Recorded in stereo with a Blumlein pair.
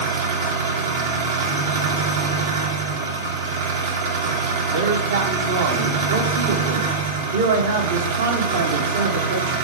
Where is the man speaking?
60° right, 1.3 m.